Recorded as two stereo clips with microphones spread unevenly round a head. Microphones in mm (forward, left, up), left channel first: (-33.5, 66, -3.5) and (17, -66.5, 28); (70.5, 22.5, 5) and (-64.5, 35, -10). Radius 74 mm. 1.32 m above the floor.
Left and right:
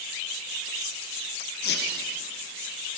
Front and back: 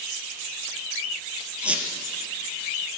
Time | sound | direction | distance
1.6 | a squeak | 90° left | 2.5 m